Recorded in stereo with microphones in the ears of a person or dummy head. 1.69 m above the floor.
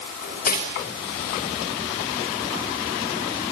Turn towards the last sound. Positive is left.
turn(degrees=45)  # may be behind; listen again after turning